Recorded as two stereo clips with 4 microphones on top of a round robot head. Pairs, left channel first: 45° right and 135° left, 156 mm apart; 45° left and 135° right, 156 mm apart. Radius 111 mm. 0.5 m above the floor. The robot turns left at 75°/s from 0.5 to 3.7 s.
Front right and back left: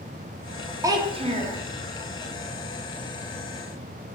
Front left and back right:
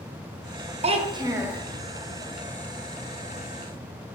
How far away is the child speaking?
About 0.5 m.